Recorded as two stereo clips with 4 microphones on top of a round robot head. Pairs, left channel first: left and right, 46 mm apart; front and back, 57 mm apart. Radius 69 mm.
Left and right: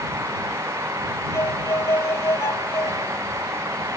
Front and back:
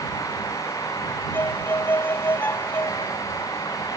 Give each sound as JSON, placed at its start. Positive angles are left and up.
{"t": 1.3, "sound": "a violin", "azimuth_deg": 55}